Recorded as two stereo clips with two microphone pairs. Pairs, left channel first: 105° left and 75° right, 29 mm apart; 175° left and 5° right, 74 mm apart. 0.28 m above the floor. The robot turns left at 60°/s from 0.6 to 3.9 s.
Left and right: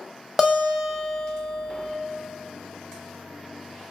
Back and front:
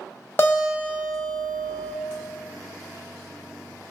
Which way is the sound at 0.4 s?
150° right.